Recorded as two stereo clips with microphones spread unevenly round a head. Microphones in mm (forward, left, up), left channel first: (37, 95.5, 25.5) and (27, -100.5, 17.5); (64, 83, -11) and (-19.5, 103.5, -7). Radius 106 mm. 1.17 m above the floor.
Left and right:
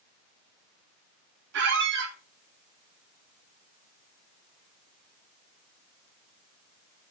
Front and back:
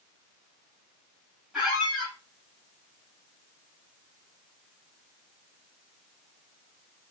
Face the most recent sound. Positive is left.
turn(degrees=-110)